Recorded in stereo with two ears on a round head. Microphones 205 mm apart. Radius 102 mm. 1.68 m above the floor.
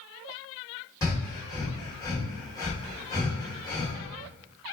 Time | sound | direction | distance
1.0 | breathing | 15° left (ahead or behind) | 1.0 m